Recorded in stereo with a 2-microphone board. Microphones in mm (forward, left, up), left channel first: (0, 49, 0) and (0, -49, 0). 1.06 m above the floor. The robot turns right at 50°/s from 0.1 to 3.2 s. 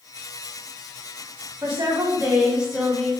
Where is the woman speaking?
55° right, 1.2 m; by 3.1 s 20° left, 1.2 m.